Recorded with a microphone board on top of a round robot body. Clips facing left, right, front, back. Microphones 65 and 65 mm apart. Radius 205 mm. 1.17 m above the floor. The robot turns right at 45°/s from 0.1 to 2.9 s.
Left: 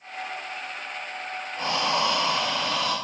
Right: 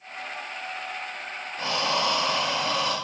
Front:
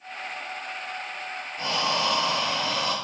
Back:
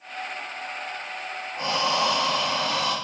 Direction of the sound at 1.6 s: 135° left.